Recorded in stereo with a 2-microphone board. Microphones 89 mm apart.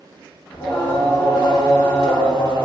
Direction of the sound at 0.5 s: 80° left.